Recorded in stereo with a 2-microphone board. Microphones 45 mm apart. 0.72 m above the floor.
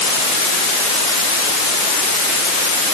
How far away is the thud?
No thud in this recording.